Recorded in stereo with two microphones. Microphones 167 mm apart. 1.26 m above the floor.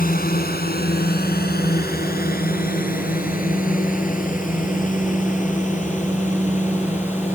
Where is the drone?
70° left (ahead or behind); by 7.4 s 50° left (ahead or behind).